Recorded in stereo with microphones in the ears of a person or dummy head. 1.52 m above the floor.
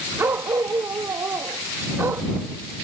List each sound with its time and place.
0.2 s a dog barking: 5° right (ahead or behind)